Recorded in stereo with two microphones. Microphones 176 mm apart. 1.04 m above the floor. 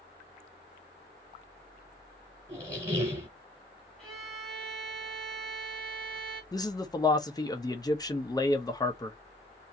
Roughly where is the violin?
Centre.